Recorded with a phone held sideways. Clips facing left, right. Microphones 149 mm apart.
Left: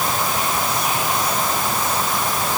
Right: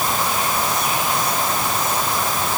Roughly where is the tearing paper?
No tearing paper in this recording.